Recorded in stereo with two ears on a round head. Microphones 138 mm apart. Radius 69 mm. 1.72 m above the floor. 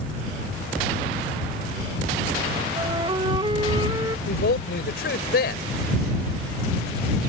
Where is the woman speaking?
70° left (ahead or behind).